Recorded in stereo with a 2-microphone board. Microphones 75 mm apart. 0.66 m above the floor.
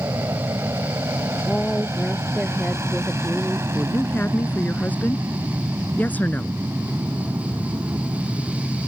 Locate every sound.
0.0 s an aircraft: 35° right (ahead or behind)
1.5 s a woman speaking: 10° left (ahead or behind)
3.8 s a woman speaking: 25° left (ahead or behind)